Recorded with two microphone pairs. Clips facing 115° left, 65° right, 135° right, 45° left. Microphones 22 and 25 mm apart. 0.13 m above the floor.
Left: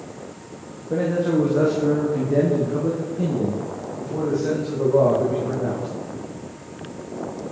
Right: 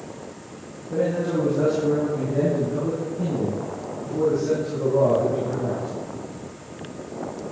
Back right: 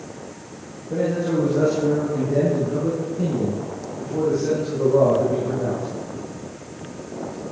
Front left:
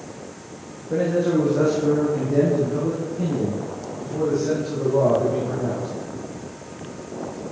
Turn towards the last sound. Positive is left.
turn(degrees=165)